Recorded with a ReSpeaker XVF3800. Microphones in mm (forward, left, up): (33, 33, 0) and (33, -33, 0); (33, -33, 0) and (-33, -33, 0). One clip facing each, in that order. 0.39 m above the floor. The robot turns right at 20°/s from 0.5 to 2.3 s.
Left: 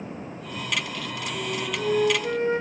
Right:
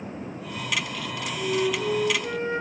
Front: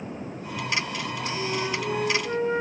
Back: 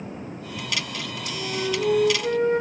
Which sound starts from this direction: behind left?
A flute, at 1.3 s.